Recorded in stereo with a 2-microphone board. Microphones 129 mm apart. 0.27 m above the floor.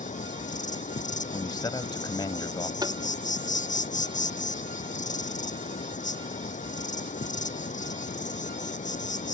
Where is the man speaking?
35° left (ahead or behind).